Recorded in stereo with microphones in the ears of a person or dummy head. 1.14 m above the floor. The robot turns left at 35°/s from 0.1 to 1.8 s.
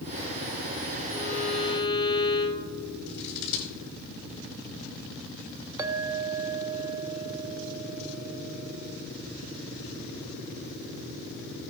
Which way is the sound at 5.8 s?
15° right (ahead or behind).